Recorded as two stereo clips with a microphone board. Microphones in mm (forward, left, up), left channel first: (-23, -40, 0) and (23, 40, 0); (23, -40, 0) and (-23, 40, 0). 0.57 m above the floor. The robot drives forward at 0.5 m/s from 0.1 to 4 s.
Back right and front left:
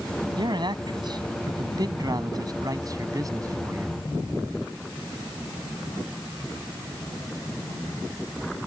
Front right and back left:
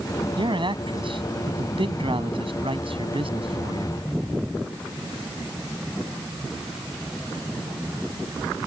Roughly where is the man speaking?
Left.